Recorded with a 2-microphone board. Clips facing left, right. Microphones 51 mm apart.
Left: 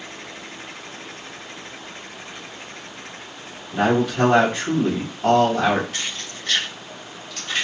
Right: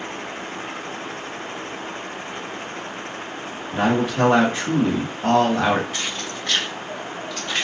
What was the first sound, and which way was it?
A man speaking, 15° right (ahead or behind).